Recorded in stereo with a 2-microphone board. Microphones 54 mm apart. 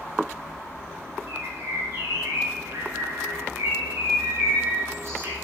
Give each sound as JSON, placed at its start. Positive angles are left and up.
{"t": 1.3, "sound": "a bird", "side_deg": -50, "distance_m": 5.0}